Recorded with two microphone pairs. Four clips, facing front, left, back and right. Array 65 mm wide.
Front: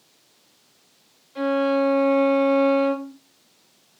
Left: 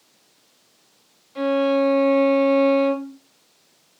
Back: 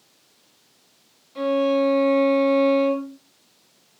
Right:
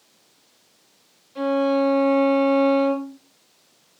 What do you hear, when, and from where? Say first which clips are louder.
1.4 s a violin: left 1 dB, back 1 dB; 95° left, 1.5 m